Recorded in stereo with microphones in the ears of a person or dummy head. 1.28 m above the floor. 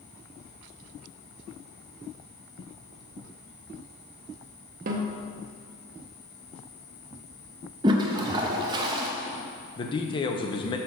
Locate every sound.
4.9 s a snare drum: 45° right (ahead or behind), 0.8 m
7.8 s a toilet flushing: 25° right (ahead or behind), 0.7 m
9.8 s a man speaking: 20° left (ahead or behind), 0.6 m